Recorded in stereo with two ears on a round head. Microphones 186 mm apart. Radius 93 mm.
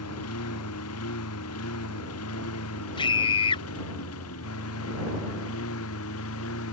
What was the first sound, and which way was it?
A lawn mower, 80° left.